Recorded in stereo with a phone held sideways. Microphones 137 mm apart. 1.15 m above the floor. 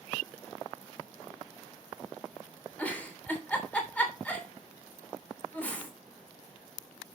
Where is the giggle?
10° left (ahead or behind), 3 m.